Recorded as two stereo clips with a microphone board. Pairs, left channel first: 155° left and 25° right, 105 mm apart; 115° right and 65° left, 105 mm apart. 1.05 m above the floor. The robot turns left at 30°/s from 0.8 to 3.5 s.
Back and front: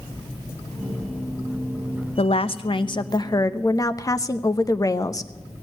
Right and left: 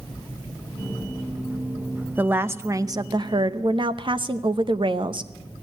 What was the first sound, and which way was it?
A woman speaking, 140° left.